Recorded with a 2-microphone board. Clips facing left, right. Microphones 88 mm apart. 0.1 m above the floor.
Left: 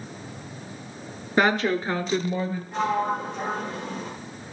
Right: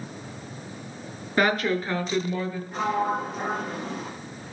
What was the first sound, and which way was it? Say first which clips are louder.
A woman speaking: left 1 dB; 20° left (ahead or behind).